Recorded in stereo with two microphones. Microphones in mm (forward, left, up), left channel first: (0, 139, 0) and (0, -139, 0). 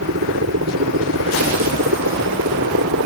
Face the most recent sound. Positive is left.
turn(degrees=-75)  # may be behind; listen again after turning